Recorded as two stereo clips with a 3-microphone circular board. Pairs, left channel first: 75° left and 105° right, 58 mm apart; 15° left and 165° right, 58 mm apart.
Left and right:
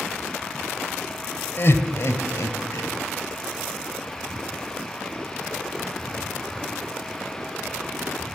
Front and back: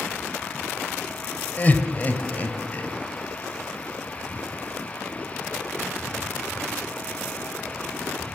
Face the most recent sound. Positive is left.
turn(degrees=70)